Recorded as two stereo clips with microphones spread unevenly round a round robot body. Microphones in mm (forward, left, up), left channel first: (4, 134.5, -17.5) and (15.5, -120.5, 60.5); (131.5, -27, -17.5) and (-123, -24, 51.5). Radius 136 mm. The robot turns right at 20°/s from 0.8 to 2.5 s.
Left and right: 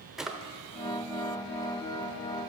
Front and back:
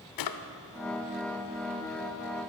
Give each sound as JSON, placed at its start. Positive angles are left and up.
{"t": 0.2, "sound": "a drawer", "azimuth_deg": -5, "distance_m": 0.6}